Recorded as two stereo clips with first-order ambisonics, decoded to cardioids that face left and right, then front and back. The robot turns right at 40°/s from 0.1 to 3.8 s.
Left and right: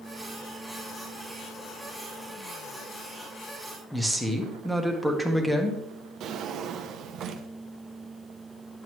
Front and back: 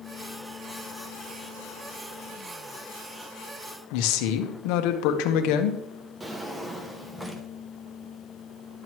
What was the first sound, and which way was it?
A woman speaking, straight ahead.